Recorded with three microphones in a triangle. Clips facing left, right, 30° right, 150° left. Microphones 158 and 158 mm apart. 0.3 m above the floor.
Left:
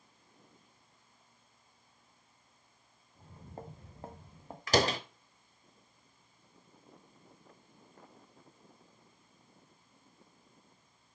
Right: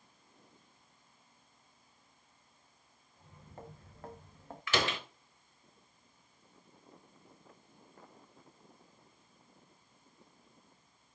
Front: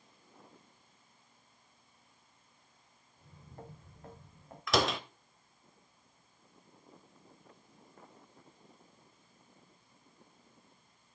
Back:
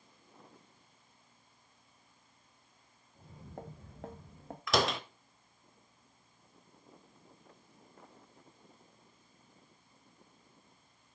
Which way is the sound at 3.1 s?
140° left.